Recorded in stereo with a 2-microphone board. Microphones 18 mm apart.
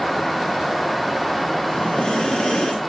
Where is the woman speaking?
No woman speaking in this recording.